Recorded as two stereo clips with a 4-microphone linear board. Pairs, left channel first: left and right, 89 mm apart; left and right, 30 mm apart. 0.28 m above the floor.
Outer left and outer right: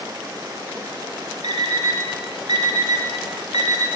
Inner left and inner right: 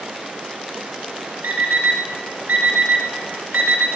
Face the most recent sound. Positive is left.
turn(degrees=-65)  # may be behind; listen again after turning